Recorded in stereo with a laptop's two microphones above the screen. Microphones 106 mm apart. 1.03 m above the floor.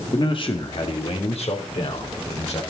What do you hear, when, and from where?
0.1 s a man speaking: 45° left (ahead or behind), 1.9 m; by 2.6 s 85° left, 4.5 m